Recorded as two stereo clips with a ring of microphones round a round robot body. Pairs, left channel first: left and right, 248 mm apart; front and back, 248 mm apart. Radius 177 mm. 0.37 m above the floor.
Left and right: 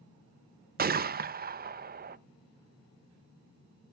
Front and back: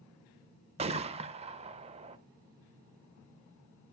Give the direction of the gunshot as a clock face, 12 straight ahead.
4 o'clock.